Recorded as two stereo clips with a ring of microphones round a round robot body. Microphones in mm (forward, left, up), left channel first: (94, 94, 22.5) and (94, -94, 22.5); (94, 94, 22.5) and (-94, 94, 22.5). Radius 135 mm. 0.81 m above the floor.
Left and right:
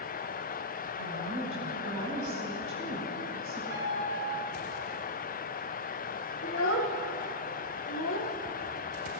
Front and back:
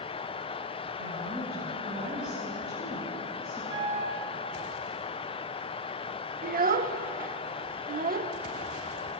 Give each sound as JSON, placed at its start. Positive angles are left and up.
{"t": 1.0, "sound": "a woman speaking", "azimuth_deg": -125, "distance_m": 5.5}
{"t": 3.7, "sound": "a piano", "azimuth_deg": -140, "distance_m": 4.0}
{"t": 6.4, "sound": "a child speaking", "azimuth_deg": 135, "distance_m": 0.8}